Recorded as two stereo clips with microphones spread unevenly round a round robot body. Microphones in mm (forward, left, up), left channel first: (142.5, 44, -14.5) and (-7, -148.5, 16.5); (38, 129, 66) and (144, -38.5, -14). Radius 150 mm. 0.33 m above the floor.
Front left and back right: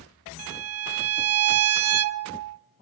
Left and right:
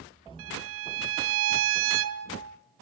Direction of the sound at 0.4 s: 95° right.